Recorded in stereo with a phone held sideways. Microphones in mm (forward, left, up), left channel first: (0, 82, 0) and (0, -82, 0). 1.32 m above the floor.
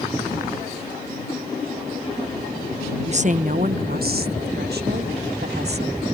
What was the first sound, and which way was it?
A woman speaking, 40° right (ahead or behind).